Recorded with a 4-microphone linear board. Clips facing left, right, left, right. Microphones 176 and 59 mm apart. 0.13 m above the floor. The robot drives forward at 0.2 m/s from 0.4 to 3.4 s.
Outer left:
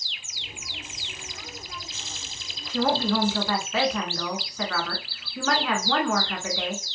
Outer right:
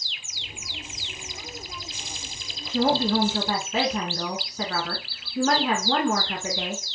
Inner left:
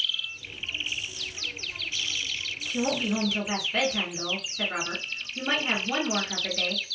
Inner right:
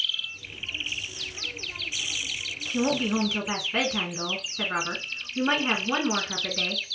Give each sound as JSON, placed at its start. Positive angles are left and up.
{"t": 2.7, "sound": "a woman speaking", "side_deg": -25, "distance_m": 1.1}